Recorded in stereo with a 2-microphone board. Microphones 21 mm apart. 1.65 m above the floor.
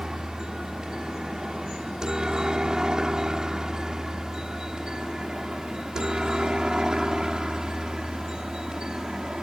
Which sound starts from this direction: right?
A helicopter, at 0.0 s.